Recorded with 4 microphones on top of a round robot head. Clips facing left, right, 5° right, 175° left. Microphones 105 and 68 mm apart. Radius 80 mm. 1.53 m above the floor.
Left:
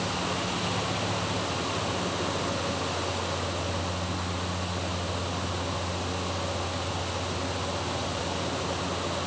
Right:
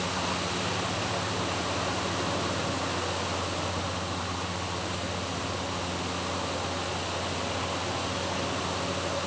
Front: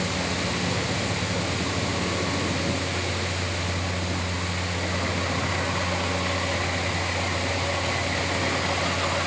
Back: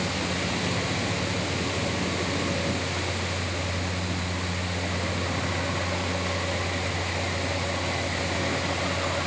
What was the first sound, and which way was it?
Only background noise.